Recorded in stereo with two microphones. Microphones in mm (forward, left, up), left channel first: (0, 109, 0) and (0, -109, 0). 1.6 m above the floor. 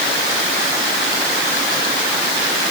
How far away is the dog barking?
No dog barking in this recording.